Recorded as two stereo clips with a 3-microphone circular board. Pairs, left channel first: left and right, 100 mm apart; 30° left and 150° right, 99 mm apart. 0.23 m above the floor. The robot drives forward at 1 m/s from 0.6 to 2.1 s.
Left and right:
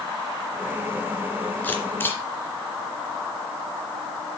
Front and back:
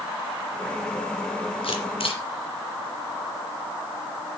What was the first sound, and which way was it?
A camera shutter, 20° left.